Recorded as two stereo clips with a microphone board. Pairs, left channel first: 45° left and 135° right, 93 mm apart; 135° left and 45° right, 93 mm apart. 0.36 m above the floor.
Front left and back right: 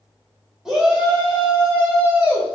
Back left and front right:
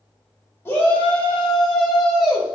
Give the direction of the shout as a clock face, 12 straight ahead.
7 o'clock.